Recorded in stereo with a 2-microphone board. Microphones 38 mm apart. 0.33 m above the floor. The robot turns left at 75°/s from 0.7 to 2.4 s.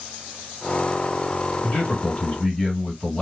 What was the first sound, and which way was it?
A man speaking, 90° left.